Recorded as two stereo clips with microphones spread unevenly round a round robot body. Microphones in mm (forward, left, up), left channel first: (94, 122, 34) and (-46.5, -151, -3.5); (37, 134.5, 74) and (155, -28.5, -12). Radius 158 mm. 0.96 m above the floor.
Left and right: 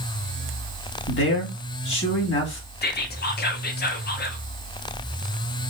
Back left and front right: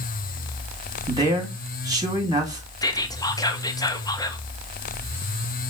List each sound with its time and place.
1.1 s a man speaking: 10° left, 2 m
2.8 s whispering: 25° left, 0.8 m